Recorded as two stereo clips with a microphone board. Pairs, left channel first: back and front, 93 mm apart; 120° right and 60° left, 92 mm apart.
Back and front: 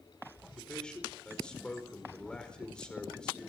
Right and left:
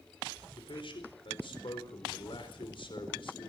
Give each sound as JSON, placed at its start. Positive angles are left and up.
{"t": 0.6, "sound": "a man speaking", "azimuth_deg": -100, "distance_m": 4.5}